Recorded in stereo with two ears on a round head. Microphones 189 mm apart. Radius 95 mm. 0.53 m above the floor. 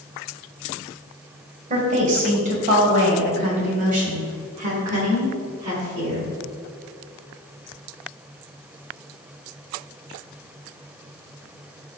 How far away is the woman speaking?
About 2 m.